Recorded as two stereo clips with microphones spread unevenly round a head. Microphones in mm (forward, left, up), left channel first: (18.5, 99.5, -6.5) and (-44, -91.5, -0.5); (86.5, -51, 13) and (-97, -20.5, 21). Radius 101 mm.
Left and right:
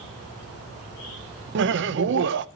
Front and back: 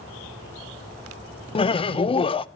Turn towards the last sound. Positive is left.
turn(degrees=-70)